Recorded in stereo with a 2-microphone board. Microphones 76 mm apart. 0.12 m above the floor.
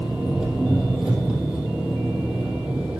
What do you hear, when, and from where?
0.0 s an engine running: 10° right (ahead or behind), 2.5 m